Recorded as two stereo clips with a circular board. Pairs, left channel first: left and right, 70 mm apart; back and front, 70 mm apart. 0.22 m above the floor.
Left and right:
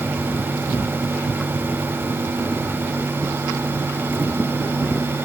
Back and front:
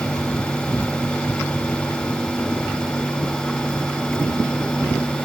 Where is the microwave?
No microwave in this recording.